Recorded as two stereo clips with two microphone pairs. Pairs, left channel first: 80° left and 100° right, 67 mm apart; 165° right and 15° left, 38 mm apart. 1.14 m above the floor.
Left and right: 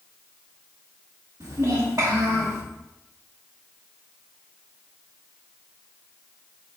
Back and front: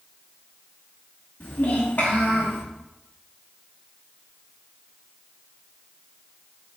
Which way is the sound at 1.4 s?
130° right.